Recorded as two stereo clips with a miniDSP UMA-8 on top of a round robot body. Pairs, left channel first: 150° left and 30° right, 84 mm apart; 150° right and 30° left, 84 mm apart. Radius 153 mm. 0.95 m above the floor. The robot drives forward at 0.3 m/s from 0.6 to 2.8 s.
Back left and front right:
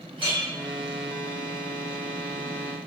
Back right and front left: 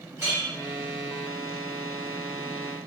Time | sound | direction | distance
0.2 | a clink | 30° right | 1.2 m